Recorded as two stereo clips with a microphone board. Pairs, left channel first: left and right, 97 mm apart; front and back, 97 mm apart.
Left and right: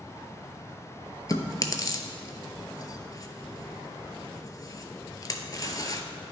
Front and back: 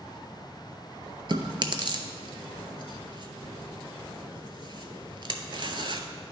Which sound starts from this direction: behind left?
Chewing, at 1.3 s.